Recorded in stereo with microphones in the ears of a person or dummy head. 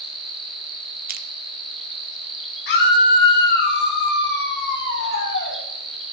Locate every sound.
0.0 s an insect: 5° right (ahead or behind), 3.5 m
1.1 s crushing: 45° right (ahead or behind), 0.9 m
2.7 s a scream: 60° left (ahead or behind), 4 m